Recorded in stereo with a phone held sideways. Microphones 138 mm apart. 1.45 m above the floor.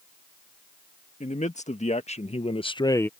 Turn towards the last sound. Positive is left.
turn(degrees=10)  # may be behind; listen again after turning